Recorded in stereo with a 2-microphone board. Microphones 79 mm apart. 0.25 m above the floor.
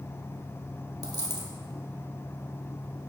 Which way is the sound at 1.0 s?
55° right (ahead or behind).